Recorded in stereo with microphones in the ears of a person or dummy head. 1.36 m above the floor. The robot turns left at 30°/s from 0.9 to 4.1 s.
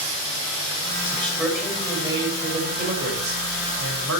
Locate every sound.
1.0 s a man speaking: 10° left, 6.5 m; by 4.2 s 85° right, 6.5 m